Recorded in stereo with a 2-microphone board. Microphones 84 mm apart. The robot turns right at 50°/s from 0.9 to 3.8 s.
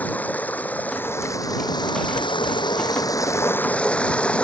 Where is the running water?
20° left; by 4.4 s 165° left.